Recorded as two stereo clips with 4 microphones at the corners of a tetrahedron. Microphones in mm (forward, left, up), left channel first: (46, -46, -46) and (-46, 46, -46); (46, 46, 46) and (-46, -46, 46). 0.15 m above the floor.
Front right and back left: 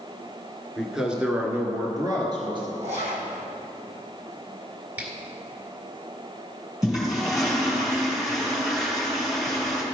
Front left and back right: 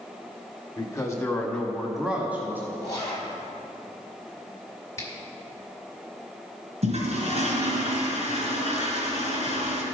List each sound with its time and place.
0.8 s a man speaking: 40° left, 1.2 m; by 2.7 s 160° left, 1.5 m
2.8 s a zipper: 110° left, 2 m
5.0 s a finger snap: 75° left, 1.5 m
6.8 s a toilet flushing: 140° right, 2.5 m